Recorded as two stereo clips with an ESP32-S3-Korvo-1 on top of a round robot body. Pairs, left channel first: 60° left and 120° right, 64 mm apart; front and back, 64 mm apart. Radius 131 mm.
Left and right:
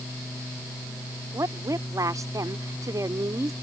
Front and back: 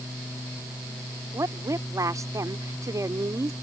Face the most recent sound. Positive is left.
turn(degrees=-150)